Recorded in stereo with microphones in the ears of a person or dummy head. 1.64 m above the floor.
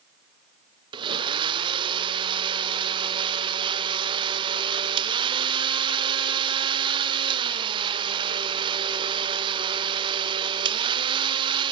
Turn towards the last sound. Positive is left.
turn(degrees=-25)  # may be behind; listen again after turning